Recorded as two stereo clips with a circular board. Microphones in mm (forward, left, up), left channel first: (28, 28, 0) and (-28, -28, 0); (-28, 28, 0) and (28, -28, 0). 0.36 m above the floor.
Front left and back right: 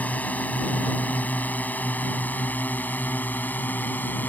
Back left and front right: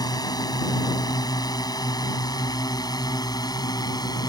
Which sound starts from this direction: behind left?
A drone, at 0.0 s.